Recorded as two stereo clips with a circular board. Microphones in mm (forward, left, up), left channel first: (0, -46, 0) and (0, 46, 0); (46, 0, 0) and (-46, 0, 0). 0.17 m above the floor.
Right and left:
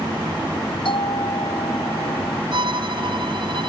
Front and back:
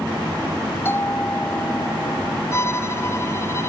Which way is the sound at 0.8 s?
65° right.